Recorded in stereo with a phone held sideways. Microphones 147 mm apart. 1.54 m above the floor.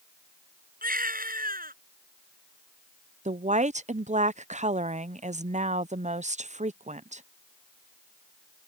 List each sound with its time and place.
0.8 s a baby crying: 90° right
3.2 s a woman speaking: 55° right (ahead or behind)